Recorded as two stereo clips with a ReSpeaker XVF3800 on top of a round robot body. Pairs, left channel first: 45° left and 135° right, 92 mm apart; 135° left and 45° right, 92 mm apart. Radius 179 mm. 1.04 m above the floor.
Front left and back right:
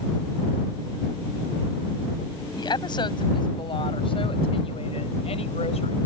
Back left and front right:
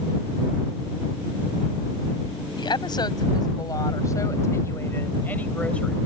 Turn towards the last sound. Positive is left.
turn(degrees=50)